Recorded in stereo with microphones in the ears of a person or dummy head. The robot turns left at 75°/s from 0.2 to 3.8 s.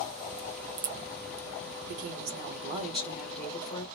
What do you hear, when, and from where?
0.4 s a crack: 15° left (ahead or behind), 1.2 m; by 1.5 s 55° right (ahead or behind), 1.2 m
1.9 s a woman speaking: 75° right, 1.3 m; by 3.9 s 140° left, 1.3 m